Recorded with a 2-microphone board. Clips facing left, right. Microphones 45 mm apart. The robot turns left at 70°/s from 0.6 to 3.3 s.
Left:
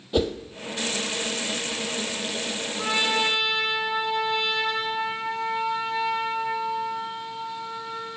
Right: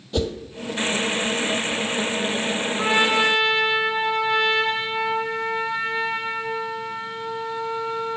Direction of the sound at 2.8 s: 40° right.